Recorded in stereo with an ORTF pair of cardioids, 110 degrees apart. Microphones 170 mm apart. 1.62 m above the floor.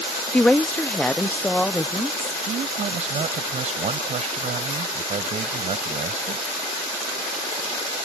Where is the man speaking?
45° right.